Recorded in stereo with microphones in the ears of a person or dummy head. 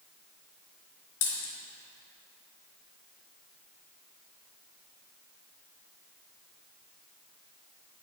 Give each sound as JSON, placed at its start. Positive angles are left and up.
{"t": 1.2, "sound": "a dropped coin", "side_deg": 70, "distance_m": 3.0}